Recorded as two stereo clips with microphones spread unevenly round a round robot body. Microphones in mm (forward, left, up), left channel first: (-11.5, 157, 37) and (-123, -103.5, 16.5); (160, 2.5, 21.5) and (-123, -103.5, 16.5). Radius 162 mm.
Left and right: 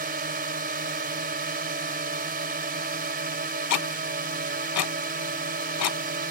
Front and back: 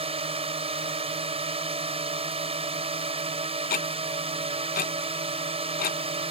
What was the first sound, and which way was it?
A drone, 105° right.